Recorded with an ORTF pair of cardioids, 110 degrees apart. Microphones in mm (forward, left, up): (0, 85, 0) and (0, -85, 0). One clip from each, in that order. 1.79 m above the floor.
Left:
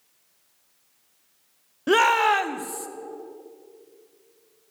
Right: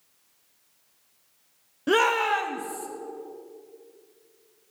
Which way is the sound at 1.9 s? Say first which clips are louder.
Left 3 dB; 5° left.